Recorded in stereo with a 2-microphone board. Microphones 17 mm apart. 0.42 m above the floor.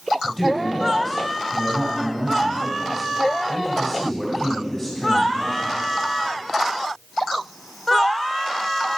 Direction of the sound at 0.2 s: Centre (ahead or behind).